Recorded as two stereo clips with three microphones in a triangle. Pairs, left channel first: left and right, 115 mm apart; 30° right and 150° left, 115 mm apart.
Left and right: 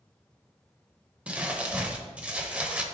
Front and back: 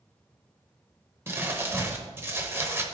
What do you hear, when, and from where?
1.3 s crumpling: 160° right, 0.8 m